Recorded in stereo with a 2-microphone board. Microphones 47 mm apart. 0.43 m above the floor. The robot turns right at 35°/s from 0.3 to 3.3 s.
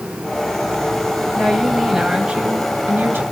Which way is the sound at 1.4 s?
170° left.